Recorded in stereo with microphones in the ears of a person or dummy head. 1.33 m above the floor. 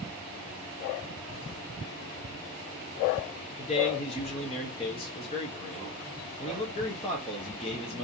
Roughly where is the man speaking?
Left.